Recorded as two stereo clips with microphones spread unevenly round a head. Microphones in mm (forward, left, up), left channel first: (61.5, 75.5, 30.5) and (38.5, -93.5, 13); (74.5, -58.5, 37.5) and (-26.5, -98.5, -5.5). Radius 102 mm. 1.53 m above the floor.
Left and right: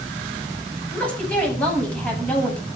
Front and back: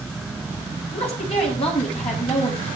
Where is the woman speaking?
Straight ahead, 8.5 m.